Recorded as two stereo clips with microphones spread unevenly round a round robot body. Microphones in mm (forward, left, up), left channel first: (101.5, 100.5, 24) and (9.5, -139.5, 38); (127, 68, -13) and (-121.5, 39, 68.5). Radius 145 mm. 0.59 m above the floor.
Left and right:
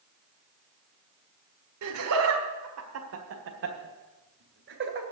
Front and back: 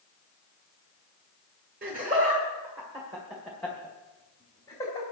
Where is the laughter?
110° right, 1.7 m; by 5.0 s 65° right, 2.5 m.